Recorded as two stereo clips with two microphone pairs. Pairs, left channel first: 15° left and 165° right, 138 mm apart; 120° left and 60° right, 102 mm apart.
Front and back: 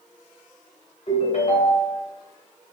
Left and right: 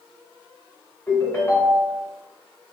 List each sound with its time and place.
1.1 s a ringtone: 60° left, 2.0 m